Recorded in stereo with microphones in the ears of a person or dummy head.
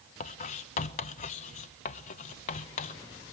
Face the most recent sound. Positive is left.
turn(degrees=45)  # may be behind; listen again after turning